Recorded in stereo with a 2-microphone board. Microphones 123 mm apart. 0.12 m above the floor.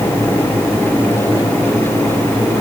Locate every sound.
Only background noise.